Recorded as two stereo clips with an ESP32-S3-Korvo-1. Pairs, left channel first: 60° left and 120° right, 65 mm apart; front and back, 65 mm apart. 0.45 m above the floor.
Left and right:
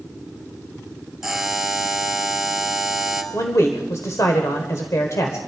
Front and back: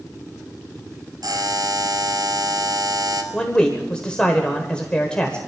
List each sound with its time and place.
1.2 s a buzzer: 155° left, 2 m
3.3 s a man speaking: 70° left, 1.5 m